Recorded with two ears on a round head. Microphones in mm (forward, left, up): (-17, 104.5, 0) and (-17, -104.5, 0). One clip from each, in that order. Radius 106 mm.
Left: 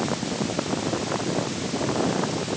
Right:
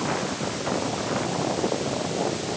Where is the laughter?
No laughter in this recording.